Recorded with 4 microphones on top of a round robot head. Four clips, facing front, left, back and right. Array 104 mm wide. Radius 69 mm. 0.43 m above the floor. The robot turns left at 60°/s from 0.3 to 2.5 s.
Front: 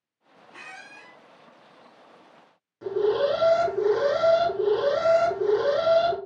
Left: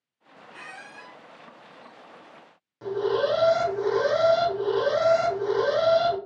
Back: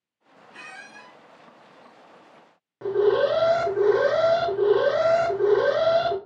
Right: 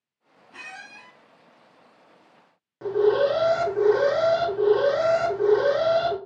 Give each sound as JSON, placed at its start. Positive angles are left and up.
{"t": 0.5, "sound": "a squeak", "azimuth_deg": -85, "distance_m": 1.7}
{"t": 2.8, "sound": "an alarm", "azimuth_deg": -145, "distance_m": 1.1}